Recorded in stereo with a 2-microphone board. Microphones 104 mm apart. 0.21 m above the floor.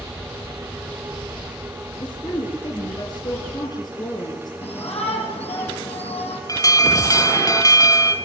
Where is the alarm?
35° left (ahead or behind), 1.6 m.